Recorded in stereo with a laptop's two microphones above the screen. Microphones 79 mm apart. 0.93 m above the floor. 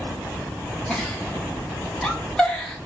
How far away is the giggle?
About 1.0 m.